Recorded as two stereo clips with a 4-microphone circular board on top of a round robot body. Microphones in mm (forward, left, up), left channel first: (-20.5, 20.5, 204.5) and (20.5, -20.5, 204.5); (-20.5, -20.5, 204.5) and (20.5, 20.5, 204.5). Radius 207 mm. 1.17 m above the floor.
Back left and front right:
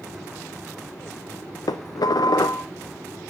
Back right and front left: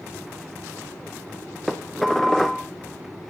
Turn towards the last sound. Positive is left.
turn(degrees=140)